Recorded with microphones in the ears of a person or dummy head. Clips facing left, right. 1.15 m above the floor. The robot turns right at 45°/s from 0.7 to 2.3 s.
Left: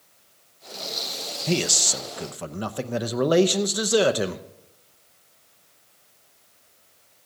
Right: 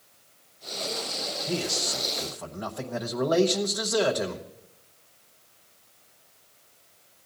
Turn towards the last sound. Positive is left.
turn(degrees=140)